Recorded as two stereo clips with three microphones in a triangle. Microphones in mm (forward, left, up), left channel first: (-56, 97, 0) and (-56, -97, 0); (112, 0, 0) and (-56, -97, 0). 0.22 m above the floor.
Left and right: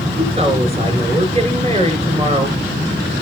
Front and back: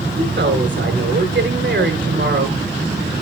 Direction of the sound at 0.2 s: 145° right.